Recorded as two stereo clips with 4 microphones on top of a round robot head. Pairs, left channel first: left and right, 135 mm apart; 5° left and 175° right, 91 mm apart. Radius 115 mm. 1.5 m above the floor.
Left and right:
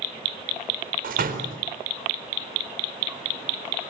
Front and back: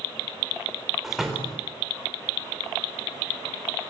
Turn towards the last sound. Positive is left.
turn(degrees=-90)